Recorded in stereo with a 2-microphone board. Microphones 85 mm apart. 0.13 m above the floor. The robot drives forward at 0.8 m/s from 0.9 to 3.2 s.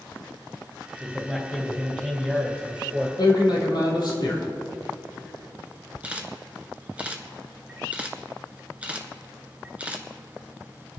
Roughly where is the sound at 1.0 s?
Centre.